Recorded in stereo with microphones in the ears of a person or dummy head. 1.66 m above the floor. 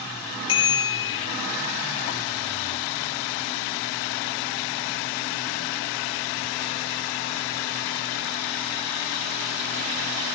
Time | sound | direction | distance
0.5 | a bicycle bell | 30° left (ahead or behind) | 2.5 m